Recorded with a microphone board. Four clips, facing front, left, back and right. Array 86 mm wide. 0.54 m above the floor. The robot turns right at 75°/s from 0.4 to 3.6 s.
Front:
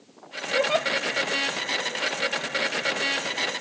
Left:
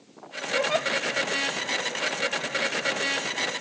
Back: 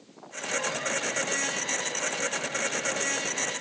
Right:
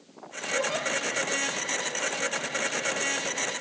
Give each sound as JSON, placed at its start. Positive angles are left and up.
{"t": 0.6, "sound": "a giggle", "azimuth_deg": 10, "distance_m": 2.5}